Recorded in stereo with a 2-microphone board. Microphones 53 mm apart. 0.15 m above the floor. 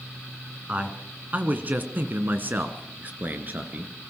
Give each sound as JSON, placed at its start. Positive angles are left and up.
{"t": 0.7, "sound": "a man speaking", "side_deg": -25, "distance_m": 2.0}